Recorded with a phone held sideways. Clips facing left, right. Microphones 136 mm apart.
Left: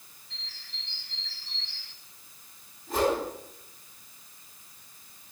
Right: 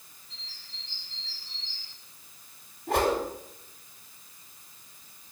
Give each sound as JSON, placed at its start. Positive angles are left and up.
{"t": 0.3, "sound": "a bird", "side_deg": 80, "distance_m": 1.3}
{"t": 2.9, "sound": "a whoosh", "side_deg": -80, "distance_m": 5.0}